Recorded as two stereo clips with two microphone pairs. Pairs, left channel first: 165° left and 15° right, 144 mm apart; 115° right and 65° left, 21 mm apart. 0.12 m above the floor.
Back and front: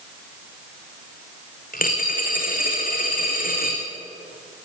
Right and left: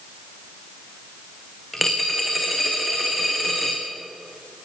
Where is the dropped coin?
155° left, 4 m.